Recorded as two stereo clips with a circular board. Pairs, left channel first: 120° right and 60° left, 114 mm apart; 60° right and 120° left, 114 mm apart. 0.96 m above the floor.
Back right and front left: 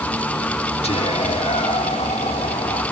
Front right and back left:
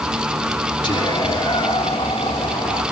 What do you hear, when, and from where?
0.8 s whispering: 100° right, 3 m